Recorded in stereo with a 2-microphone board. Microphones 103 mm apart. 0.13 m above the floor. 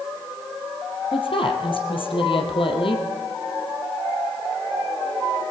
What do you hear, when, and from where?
1.1 s a woman speaking: 60° left (ahead or behind), 4 m